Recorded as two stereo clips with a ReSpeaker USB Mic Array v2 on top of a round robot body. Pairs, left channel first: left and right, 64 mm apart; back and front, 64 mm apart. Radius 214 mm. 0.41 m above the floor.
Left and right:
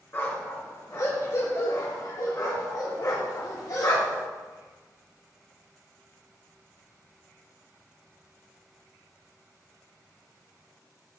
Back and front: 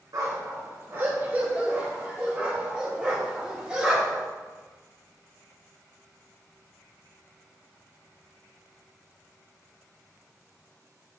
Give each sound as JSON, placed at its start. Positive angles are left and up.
{"t": 0.1, "sound": "a dog barking", "azimuth_deg": 35, "distance_m": 2.5}